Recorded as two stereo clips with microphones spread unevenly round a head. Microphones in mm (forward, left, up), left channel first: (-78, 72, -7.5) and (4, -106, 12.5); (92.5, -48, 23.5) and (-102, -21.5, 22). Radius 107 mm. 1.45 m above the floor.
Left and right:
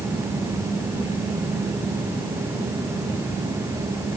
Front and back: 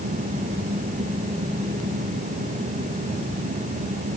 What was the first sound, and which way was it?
Only background noise.